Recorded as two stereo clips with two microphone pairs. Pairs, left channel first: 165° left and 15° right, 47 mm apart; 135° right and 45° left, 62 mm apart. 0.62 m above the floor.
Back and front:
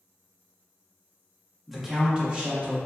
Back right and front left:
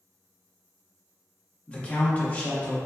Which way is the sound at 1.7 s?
100° right.